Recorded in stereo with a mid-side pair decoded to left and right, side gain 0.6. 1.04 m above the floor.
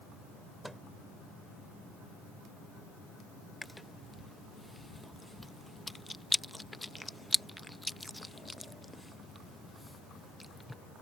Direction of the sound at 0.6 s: 5° right.